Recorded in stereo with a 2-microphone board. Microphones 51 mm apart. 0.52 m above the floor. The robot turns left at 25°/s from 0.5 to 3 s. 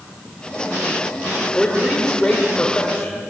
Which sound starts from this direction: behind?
A man speaking, at 1.6 s.